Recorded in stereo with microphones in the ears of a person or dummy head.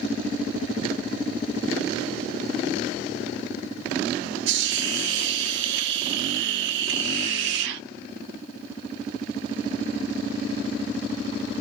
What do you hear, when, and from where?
4.5 s a hiss: 70° right (ahead or behind), 0.6 m